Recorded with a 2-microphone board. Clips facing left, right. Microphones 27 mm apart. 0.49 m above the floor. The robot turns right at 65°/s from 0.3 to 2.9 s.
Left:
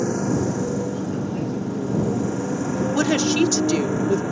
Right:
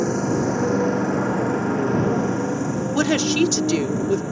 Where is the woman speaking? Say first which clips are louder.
Right 1 dB; 5° right (ahead or behind).